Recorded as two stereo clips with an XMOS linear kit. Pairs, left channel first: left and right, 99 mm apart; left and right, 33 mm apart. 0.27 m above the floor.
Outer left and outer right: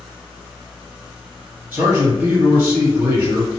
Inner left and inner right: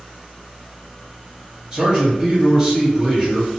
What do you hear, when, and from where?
1.7 s a man speaking: 15° right (ahead or behind), 1.7 m